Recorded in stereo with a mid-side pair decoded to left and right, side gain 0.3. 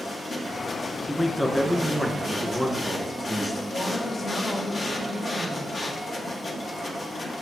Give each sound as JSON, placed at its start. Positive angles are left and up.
{"t": 0.0, "sound": "a machine running", "azimuth_deg": 60, "distance_m": 1.6}
{"t": 1.1, "sound": "a man speaking", "azimuth_deg": 10, "distance_m": 1.7}
{"t": 3.7, "sound": "a woman speaking", "azimuth_deg": 70, "distance_m": 2.5}